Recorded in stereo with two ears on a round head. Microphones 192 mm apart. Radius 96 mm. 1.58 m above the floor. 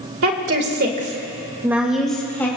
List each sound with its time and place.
0.2 s a woman speaking: 70° right (ahead or behind), 2 m; by 2.5 s 10° left (ahead or behind), 3 m